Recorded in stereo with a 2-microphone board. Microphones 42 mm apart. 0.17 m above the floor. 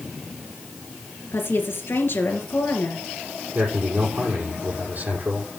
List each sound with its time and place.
1.3 s a woman speaking: 65° left (ahead or behind), 3.5 m
3.5 s a man speaking: 35° right (ahead or behind), 6 m